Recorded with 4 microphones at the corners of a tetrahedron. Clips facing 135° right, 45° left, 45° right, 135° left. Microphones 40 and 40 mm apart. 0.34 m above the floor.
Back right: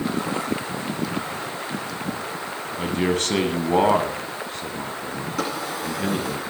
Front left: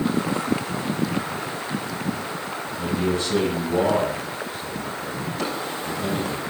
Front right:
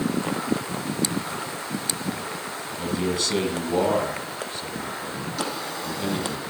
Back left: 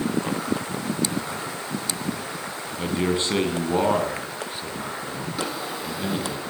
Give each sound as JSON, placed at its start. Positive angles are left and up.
{"t": 2.8, "sound": "a man speaking", "azimuth_deg": -170, "distance_m": 2.5}
{"t": 5.4, "sound": "a drawer", "azimuth_deg": -150, "distance_m": 9.5}